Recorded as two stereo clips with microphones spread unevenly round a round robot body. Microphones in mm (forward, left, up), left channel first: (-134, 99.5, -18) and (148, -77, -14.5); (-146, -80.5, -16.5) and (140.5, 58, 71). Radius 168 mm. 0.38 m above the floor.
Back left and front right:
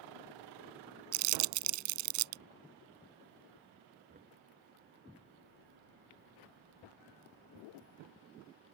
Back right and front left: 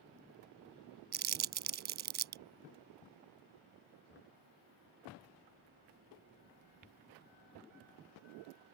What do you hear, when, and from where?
1.1 s crumpling: 35° right
4.1 s knocking: 100° right